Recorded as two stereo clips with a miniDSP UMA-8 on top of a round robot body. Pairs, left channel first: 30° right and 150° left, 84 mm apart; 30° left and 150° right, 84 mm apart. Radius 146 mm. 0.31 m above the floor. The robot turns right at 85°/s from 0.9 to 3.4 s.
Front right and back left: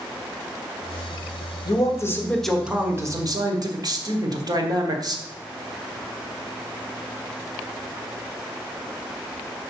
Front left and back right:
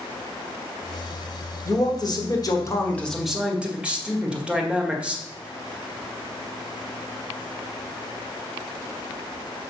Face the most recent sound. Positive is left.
turn(degrees=135)